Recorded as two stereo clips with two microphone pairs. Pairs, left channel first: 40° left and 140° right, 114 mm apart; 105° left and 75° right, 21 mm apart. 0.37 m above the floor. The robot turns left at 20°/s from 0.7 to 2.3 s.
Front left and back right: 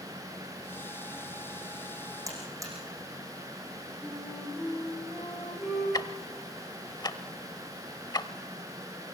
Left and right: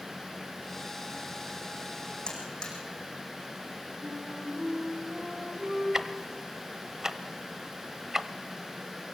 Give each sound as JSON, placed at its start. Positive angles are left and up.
{"t": 2.3, "sound": "a buzzer", "azimuth_deg": 155, "distance_m": 6.0}
{"t": 4.0, "sound": "a flute", "azimuth_deg": -50, "distance_m": 9.5}
{"t": 5.9, "sound": "ticking", "azimuth_deg": -15, "distance_m": 0.8}